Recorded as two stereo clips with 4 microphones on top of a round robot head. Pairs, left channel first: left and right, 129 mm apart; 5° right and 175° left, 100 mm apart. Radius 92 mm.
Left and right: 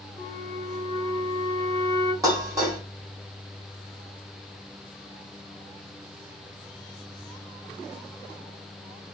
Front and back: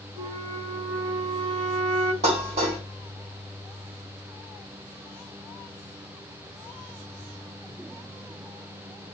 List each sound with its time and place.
0.2 s a flute: 150° left, 1.0 m
2.2 s dishes clattering: 150° right, 2 m